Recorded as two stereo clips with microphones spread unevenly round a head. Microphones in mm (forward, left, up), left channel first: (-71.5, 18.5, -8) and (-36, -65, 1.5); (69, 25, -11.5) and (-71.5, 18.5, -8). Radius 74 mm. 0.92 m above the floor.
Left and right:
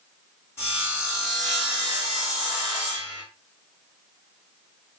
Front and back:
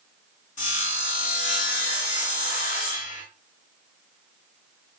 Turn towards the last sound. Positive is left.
turn(degrees=40)